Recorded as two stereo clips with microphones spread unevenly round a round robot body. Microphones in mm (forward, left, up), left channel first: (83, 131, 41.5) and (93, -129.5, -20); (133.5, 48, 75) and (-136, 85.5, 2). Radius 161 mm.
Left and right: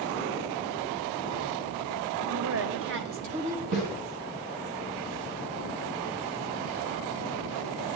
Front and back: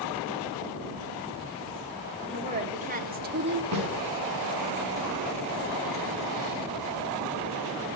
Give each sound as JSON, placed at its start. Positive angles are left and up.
{"t": 2.3, "sound": "a woman speaking", "azimuth_deg": -120, "distance_m": 2.5}
{"t": 3.7, "sound": "a snare drum", "azimuth_deg": -155, "distance_m": 5.0}